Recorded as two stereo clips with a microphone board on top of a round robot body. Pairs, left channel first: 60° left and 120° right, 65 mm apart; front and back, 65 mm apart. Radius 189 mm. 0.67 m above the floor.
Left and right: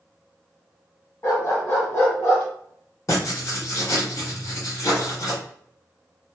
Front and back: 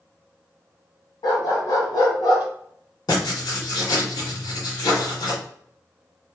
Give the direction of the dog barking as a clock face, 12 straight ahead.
12 o'clock.